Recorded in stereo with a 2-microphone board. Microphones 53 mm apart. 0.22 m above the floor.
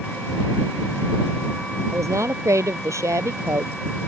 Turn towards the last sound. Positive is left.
turn(degrees=-80)